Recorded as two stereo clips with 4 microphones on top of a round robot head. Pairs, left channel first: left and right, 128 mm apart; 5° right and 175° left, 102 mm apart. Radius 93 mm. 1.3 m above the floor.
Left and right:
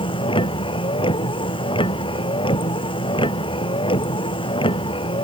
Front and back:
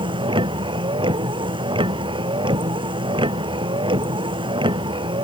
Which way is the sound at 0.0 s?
140° left.